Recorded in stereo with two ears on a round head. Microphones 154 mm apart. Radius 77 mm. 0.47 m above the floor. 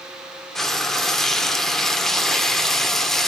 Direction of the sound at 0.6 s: Centre (ahead or behind).